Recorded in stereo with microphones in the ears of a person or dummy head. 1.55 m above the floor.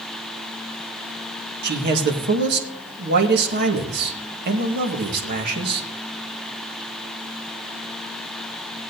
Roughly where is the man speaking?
Right.